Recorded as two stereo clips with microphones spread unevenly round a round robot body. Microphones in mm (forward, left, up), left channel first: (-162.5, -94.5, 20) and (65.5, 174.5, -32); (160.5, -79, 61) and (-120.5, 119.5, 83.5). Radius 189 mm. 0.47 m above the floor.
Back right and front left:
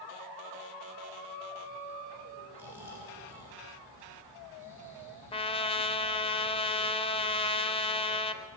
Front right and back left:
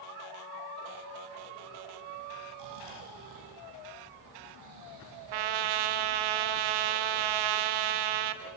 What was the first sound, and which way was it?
Snoring, 130° left.